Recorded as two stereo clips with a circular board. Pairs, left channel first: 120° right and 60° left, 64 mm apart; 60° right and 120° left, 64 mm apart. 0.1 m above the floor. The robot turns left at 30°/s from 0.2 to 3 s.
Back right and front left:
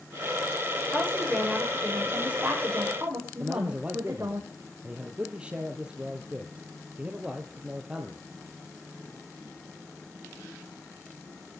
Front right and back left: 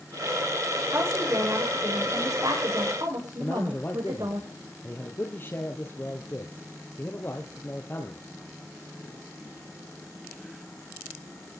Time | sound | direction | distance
0.9 | a woman speaking | 175° left | 9 m
3.4 | a man speaking | 10° right | 2 m